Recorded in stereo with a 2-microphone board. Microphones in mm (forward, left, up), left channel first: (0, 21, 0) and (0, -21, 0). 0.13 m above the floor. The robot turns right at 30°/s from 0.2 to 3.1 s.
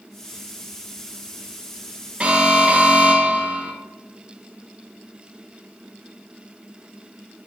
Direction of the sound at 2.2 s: 30° right (ahead or behind).